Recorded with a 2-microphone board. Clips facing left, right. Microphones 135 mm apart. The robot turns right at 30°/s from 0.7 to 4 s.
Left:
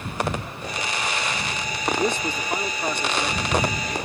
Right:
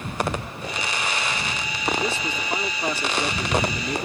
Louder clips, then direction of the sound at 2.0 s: Left 3 dB; 160° left.